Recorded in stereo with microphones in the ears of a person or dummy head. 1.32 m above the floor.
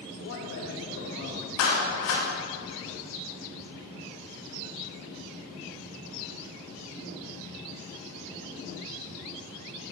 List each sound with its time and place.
0.2 s a man speaking: 65° left (ahead or behind), 1.6 m
1.6 s a clap: 75° left (ahead or behind), 2 m